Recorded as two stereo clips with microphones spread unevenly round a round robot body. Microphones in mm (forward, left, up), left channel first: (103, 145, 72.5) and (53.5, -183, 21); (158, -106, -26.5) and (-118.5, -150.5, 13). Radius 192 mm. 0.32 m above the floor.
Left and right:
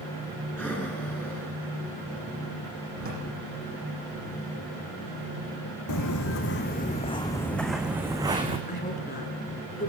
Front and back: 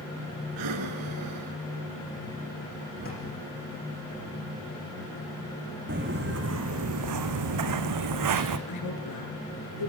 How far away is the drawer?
About 10 m.